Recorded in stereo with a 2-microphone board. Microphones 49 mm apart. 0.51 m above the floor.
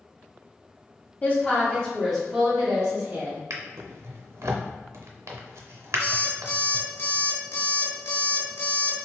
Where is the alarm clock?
65° left (ahead or behind), 0.8 m.